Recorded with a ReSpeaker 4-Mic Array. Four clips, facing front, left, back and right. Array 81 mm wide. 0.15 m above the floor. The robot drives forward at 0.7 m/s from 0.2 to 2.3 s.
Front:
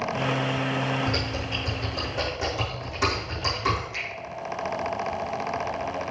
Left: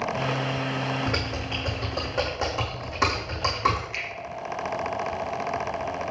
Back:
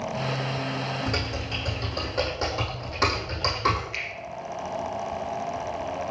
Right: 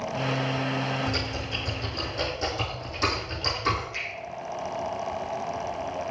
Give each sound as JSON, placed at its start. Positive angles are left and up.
{"t": 1.1, "sound": "typing on a keyboard", "azimuth_deg": 100, "distance_m": 3.5}
{"t": 3.9, "sound": "a finger snap", "azimuth_deg": 130, "distance_m": 4.0}